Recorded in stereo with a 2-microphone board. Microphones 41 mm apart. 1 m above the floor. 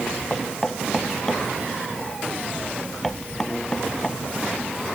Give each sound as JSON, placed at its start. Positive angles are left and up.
{"t": 0.3, "sound": "knocking", "side_deg": 10}